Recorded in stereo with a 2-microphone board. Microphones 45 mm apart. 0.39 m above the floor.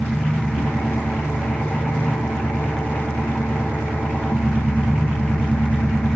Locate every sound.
0.0 s an engine running: 40° left (ahead or behind), 3 m